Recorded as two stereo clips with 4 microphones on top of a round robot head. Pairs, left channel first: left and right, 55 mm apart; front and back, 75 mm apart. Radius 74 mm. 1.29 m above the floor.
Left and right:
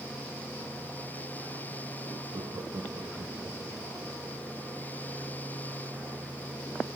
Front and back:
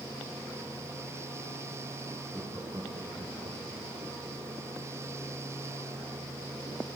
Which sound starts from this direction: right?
Laughter, at 2.3 s.